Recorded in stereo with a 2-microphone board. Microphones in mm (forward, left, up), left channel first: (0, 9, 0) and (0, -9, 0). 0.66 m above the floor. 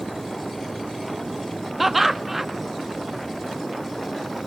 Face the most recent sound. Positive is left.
turn(degrees=-5)  # may be behind; listen again after turning